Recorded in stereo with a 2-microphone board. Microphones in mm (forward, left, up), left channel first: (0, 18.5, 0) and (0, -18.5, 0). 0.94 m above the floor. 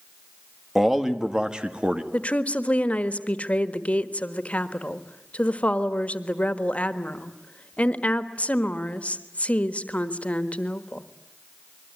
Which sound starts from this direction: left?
A woman speaking, at 2.1 s.